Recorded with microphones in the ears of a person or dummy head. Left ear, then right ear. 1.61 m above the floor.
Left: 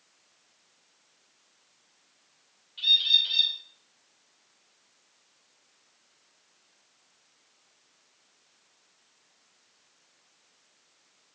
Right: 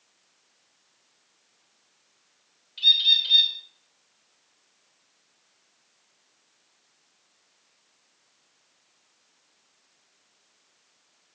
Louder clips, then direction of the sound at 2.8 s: Right 3 dB; 20° right (ahead or behind).